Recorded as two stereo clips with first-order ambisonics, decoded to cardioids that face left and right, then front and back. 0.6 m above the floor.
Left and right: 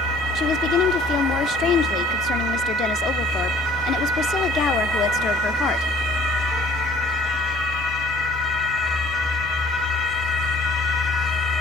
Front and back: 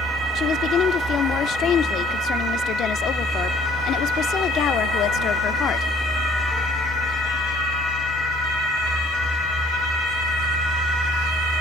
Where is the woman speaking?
45° left, 1.0 m.